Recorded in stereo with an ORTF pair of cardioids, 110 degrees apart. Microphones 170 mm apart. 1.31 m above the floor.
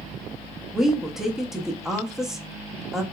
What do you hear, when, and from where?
0.7 s a woman speaking: 5° right, 0.7 m